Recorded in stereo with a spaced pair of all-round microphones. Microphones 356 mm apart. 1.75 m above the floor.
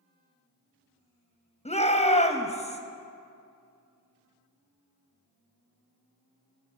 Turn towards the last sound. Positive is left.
turn(degrees=20)  # may be behind; listen again after turning